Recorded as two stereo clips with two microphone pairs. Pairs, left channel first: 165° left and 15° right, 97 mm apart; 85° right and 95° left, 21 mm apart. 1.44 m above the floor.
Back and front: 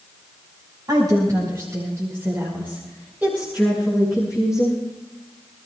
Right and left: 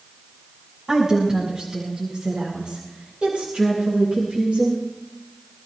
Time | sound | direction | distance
0.9 | a woman speaking | 30° left | 5 m